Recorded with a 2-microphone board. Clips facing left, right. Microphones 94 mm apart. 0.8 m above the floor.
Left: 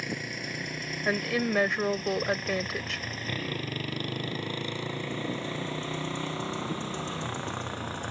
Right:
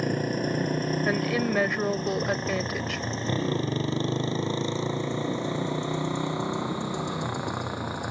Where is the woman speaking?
Centre (ahead or behind).